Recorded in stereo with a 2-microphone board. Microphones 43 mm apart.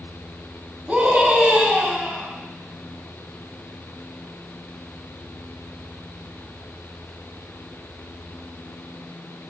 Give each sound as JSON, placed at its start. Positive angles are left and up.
{"t": 0.9, "sound": "a scream", "side_deg": -10, "distance_m": 3.5}